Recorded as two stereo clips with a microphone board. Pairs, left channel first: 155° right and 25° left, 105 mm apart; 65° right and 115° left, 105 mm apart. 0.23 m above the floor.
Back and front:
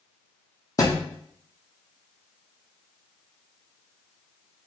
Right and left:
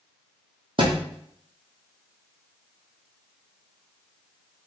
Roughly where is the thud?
Behind left.